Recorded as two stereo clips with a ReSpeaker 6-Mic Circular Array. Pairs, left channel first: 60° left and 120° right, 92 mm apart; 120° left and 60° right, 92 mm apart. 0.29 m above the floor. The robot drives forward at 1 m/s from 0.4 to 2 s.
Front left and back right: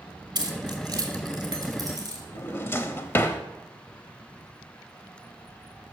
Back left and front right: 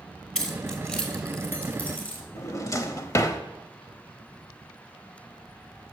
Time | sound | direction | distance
0.3 | keys jangling | 160° right | 1.5 m
2.4 | a drawer | 100° left | 0.6 m